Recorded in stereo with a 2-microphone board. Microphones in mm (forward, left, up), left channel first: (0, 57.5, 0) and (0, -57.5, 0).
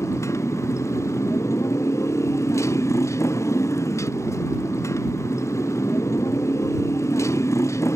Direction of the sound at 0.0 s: 25° left (ahead or behind).